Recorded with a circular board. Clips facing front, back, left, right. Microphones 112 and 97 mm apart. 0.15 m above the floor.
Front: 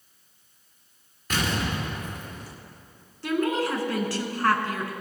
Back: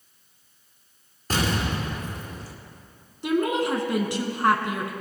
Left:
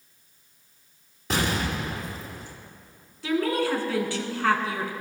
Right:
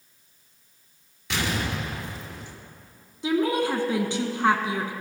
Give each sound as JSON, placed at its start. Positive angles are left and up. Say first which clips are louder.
{"t": 1.3, "sound": "an explosion", "louder": "back 2 dB, left 2 dB", "azimuth_deg": 130, "distance_m": 2.5}
{"t": 3.2, "sound": "a woman speaking", "louder": "back 2 dB, right 1 dB", "azimuth_deg": -130, "distance_m": 1.4}